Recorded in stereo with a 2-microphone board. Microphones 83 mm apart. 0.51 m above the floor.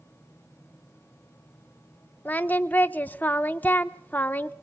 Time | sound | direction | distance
2.2 | singing | 20° left (ahead or behind) | 0.7 m